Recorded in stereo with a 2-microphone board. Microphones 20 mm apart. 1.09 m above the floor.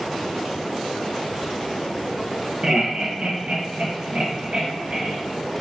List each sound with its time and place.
2.6 s laughter: 35° right (ahead or behind), 1.3 m; by 5.2 s 65° right (ahead or behind), 1.9 m